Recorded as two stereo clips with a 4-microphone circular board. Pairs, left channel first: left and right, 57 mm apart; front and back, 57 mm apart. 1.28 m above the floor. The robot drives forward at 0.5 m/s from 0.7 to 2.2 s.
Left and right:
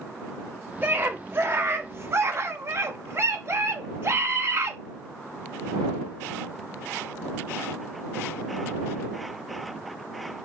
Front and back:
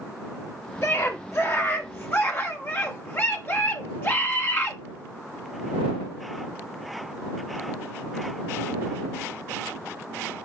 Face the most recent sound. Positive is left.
turn(degrees=-50)